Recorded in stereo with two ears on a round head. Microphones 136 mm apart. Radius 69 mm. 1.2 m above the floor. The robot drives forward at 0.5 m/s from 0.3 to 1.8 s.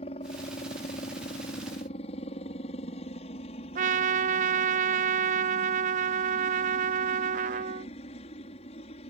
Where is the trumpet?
50° right (ahead or behind).